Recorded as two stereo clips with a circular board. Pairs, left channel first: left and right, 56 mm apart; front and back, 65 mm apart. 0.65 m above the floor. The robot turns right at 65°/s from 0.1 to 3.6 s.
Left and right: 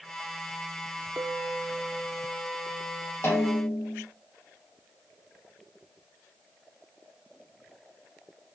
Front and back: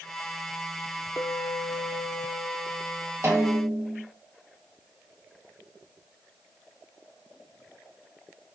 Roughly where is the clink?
Ahead right.